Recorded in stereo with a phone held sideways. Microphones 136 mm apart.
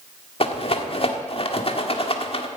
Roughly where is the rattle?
Left.